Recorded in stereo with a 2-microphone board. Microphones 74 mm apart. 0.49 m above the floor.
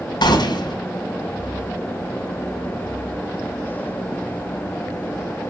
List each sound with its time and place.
0.2 s a gunshot: 70° left (ahead or behind), 4.5 m